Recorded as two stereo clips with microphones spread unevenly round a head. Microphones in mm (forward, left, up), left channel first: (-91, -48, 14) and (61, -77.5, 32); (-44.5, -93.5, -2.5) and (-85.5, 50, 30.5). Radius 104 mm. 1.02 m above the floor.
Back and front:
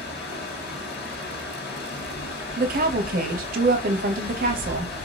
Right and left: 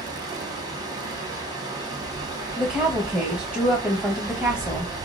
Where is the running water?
170° left, 1.3 m.